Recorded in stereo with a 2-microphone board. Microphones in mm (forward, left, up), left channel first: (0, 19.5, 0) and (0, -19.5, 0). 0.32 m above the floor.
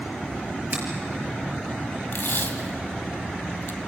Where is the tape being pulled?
65° left (ahead or behind), 1.5 m.